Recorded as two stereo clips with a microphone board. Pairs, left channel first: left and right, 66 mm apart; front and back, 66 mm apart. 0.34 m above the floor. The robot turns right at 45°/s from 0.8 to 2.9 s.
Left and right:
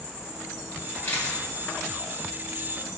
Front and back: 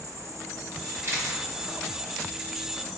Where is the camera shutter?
140° left, 1.2 m; by 1.4 s 160° left, 1.2 m.